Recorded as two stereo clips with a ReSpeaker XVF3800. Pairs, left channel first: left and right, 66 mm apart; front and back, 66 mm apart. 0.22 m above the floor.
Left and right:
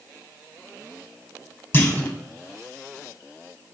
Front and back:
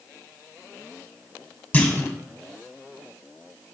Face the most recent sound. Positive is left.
turn(degrees=50)